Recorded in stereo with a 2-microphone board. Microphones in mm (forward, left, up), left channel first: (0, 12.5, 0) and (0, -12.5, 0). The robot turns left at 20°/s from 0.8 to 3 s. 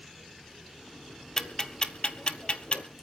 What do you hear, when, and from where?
1.4 s ticking: 20° left (ahead or behind), 1.2 m; by 2.8 s 50° left (ahead or behind), 1.2 m